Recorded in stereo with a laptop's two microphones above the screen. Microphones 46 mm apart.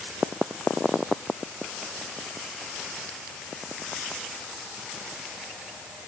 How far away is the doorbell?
No doorbell in this recording.